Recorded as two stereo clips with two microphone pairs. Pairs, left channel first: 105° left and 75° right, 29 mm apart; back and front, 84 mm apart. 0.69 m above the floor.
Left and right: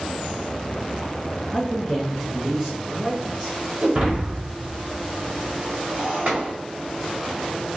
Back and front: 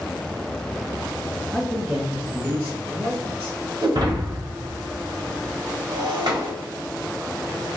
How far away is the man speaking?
About 1.1 m.